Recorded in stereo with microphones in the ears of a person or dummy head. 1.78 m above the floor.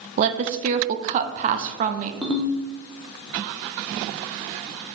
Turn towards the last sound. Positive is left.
turn(degrees=0)  # may be behind; listen again after turning